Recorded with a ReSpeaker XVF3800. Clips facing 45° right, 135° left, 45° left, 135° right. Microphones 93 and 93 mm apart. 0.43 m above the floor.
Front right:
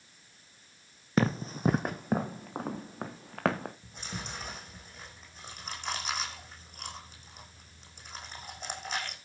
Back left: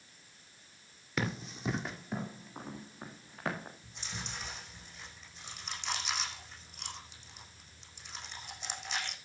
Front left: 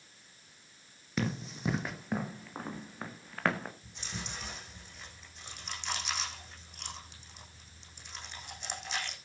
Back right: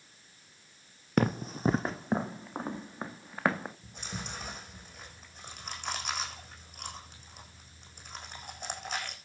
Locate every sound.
1.2 s running footsteps: 100° right, 1.4 m; by 3.7 s 60° right, 2.5 m
3.8 s chewing: 90° right, 8 m